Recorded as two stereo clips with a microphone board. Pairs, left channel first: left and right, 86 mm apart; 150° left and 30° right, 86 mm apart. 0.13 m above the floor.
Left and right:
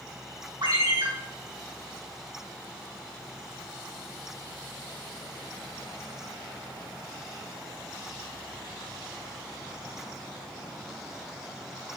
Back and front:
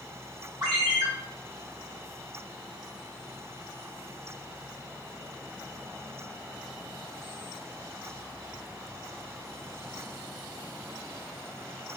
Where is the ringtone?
65° right, 3.5 m.